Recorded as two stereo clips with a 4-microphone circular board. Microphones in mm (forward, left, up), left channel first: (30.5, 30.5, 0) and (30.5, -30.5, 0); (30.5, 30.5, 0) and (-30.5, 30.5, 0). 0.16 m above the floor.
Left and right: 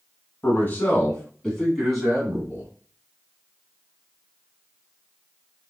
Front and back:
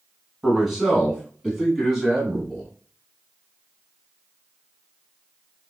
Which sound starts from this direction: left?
A man speaking, at 0.4 s.